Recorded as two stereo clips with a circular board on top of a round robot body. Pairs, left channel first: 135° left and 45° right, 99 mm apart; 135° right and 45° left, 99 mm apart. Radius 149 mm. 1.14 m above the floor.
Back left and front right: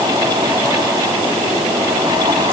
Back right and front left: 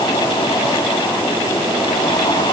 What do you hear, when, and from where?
Only background noise.